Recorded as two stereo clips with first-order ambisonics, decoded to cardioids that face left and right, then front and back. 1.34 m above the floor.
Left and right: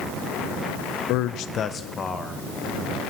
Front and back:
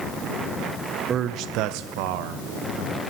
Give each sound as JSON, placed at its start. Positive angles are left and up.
{"t": 1.1, "sound": "a man speaking", "azimuth_deg": 115, "distance_m": 0.7}